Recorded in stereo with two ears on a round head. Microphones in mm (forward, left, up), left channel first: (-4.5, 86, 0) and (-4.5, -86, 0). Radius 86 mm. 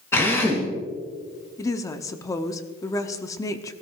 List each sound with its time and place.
0.1 s a drill: 15° left (ahead or behind), 3.5 m
1.6 s a woman speaking: 15° left (ahead or behind), 0.9 m